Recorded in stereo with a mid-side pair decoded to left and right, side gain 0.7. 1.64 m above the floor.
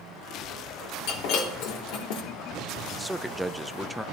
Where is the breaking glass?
70° left, 2.5 m.